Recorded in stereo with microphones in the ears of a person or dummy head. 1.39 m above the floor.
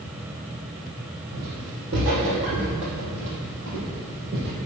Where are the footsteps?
50° right (ahead or behind), 2.5 m; by 4.5 s 55° right (ahead or behind), 2.5 m.